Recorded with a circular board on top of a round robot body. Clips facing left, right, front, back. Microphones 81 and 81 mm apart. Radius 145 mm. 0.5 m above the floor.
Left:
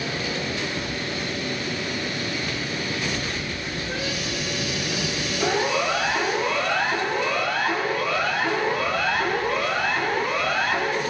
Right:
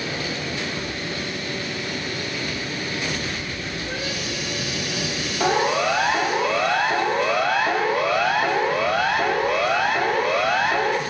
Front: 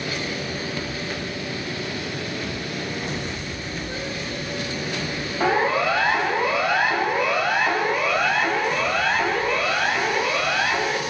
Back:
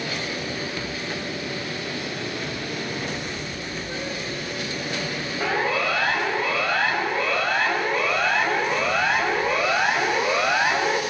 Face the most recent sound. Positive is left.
turn(degrees=-115)